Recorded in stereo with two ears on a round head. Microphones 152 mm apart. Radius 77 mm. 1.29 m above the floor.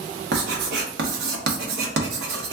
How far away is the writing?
About 0.9 m.